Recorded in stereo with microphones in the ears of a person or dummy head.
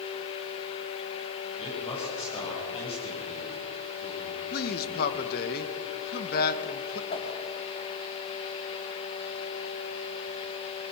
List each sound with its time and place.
1.6 s a man speaking: 30° left (ahead or behind), 7.5 m
4.5 s a man speaking: 50° left (ahead or behind), 1.6 m
7.1 s a whoosh: 35° left (ahead or behind), 2.5 m